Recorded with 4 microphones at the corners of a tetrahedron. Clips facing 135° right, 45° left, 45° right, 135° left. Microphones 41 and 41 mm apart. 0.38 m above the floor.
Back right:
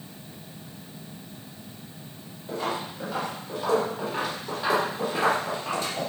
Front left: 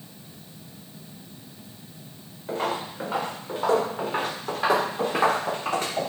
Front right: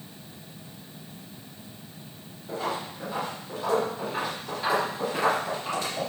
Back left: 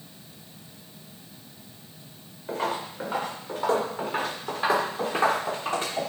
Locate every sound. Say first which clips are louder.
2.5 s footsteps: front left 2 dB, back left 2 dB; 90° left, 4 m; by 6.1 s 80° left, 6.5 m